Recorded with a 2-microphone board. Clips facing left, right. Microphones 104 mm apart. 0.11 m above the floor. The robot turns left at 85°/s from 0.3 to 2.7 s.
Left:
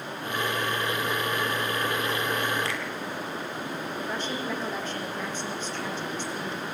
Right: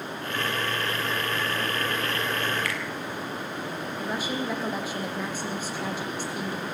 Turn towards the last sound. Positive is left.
turn(degrees=-10)  # may be behind; listen again after turning